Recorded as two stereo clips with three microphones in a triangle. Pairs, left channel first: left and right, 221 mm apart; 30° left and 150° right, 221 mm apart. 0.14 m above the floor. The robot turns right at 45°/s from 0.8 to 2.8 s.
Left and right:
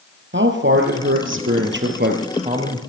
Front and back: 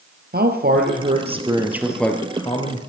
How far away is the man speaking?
About 3 m.